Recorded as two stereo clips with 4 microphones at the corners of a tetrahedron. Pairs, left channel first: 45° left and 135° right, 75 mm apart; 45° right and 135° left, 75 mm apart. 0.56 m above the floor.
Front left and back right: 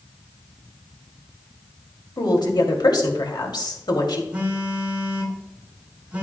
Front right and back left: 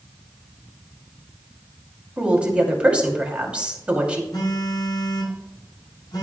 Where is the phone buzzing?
60° right, 5 m.